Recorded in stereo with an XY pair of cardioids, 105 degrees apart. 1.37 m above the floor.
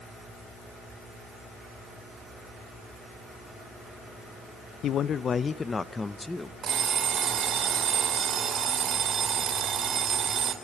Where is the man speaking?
65° left, 0.8 m; by 6.5 s 10° left, 1.5 m.